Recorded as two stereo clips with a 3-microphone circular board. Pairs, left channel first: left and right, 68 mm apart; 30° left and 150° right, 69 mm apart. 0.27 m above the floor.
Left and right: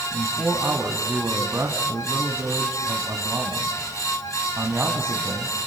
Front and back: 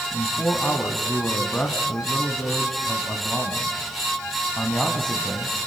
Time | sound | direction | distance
0.1 | a man speaking | 45° right | 2 m